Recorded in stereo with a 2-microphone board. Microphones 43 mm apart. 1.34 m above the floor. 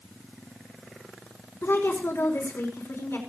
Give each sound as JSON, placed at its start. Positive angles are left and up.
{"t": 1.6, "sound": "a woman speaking", "side_deg": 80, "distance_m": 5.0}